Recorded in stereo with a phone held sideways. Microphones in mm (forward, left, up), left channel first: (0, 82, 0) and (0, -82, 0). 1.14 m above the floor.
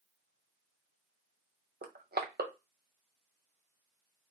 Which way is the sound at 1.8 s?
75° right (ahead or behind).